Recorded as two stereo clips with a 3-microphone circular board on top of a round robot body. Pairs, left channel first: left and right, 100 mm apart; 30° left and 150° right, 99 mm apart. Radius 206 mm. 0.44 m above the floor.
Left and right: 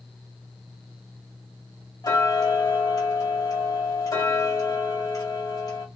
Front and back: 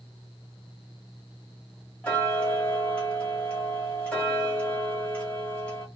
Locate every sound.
2.0 s ticking: 100° left, 1.4 m